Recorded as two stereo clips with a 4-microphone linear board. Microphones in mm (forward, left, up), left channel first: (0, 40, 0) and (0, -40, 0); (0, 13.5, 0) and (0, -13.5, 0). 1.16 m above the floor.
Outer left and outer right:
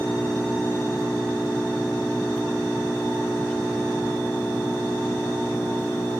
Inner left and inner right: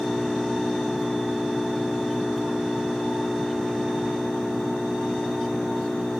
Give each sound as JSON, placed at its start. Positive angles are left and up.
{"t": 0.0, "sound": "an engine running", "side_deg": 10}